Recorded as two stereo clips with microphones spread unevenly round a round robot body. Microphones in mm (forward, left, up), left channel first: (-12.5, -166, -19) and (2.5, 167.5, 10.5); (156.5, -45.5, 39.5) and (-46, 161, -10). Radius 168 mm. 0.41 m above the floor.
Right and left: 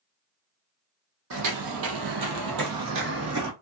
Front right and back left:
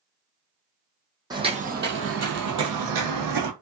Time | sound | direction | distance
1.3 | footsteps | 55° left | 0.9 m